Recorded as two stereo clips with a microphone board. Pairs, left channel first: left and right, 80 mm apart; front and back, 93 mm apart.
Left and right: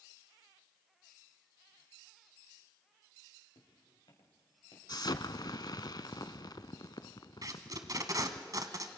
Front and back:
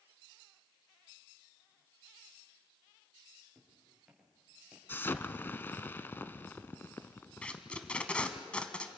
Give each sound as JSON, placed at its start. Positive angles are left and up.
{"t": 3.5, "sound": "footsteps", "azimuth_deg": 90, "distance_m": 6.5}
{"t": 4.9, "sound": "an explosion", "azimuth_deg": 65, "distance_m": 0.6}
{"t": 7.4, "sound": "tape being pulled", "azimuth_deg": -75, "distance_m": 1.2}